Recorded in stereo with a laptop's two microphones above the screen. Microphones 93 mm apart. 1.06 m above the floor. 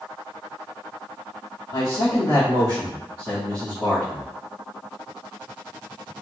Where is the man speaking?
70° left (ahead or behind), 1.7 m; by 4.2 s 20° left (ahead or behind), 1.3 m.